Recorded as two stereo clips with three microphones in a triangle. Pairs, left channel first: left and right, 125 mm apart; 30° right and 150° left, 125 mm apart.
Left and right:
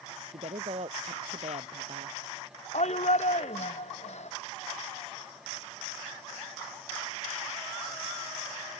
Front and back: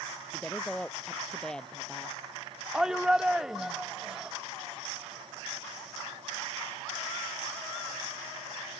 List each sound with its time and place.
0.3 s a woman speaking: 115° right
2.7 s a shout: 65° left